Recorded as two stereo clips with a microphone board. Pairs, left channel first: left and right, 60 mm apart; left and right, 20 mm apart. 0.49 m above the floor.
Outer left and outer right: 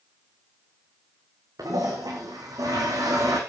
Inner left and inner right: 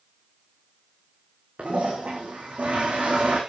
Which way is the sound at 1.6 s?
80° right.